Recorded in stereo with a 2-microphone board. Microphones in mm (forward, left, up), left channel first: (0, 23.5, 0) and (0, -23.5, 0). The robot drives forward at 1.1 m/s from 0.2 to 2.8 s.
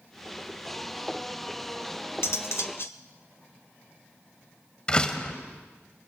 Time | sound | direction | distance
2.2 | cutlery clinking | 65° left (ahead or behind) | 1.0 m
4.9 | a door slam | 20° left (ahead or behind) | 1.8 m